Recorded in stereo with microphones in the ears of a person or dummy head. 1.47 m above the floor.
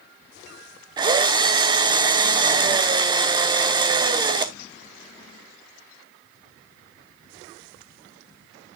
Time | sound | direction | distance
1.0 | a drill | 30° right (ahead or behind) | 0.8 m